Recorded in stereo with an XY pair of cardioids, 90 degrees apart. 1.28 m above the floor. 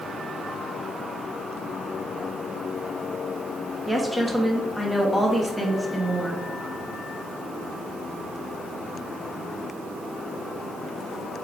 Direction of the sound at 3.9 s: Straight ahead.